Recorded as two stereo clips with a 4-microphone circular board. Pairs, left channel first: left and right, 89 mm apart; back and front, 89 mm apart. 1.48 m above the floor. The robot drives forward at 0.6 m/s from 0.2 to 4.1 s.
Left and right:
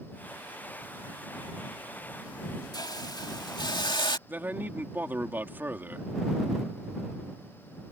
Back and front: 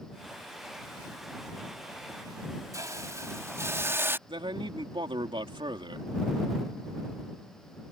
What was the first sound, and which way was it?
A hiss, 50° left.